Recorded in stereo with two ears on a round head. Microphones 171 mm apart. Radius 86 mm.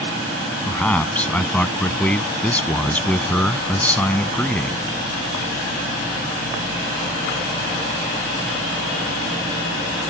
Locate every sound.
0.7 s a man speaking: 10° left (ahead or behind)